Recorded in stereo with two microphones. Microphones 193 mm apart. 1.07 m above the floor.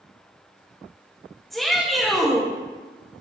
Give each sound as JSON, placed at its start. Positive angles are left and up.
{"t": 1.5, "sound": "a shout", "side_deg": 0, "distance_m": 1.4}